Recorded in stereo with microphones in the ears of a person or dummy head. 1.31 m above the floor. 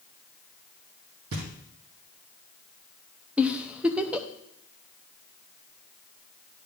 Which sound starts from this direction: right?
Knocking, at 1.3 s.